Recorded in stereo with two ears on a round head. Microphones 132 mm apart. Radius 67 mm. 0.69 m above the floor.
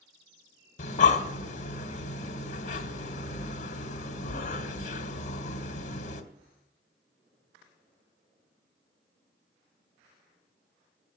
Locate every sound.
0.8 s breathing: 55° left (ahead or behind), 1.5 m